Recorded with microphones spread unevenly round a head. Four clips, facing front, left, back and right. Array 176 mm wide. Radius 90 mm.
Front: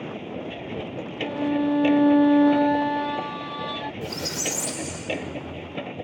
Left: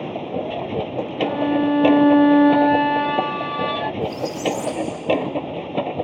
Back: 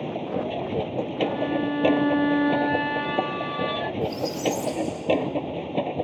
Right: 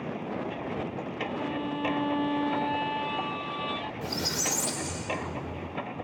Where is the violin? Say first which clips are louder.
Left 14 dB, front 2 dB; 80° left.